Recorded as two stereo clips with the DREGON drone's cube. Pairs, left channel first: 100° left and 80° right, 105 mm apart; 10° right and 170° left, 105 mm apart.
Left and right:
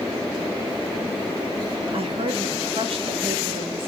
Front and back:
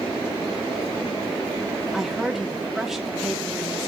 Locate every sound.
1.9 s a woman speaking: 105° right, 2 m